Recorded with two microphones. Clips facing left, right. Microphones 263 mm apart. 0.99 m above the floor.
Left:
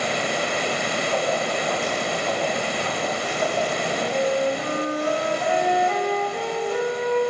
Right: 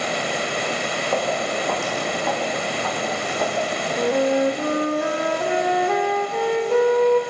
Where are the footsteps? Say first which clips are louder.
Right 2 dB; 75° right (ahead or behind), 4 m; by 3.6 s 70° right (ahead or behind), 5 m.